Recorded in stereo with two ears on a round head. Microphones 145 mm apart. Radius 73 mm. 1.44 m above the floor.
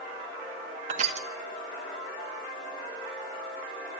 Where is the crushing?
45° right (ahead or behind), 2.0 m.